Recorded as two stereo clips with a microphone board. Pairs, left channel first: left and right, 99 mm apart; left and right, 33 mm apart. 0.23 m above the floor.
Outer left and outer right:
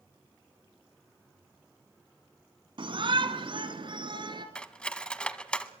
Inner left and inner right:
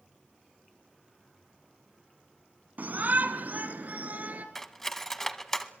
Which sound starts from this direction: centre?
Cutlery clinking, at 4.5 s.